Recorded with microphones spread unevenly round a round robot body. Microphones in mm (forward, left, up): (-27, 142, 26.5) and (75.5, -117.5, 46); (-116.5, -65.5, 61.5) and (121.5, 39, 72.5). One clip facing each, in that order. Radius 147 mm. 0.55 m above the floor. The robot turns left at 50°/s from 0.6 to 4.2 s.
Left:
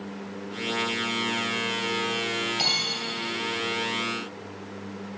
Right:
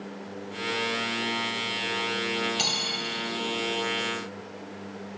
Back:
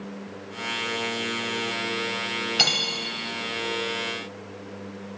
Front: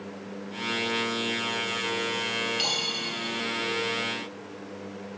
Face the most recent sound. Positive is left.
turn(degrees=135)